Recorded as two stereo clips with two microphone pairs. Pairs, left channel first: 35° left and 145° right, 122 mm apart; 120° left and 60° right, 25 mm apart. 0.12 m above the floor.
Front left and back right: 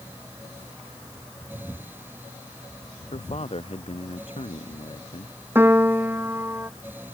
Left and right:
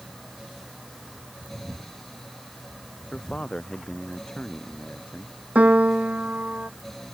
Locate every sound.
3.1 s a man speaking: 70° left
5.5 s a piano: 75° right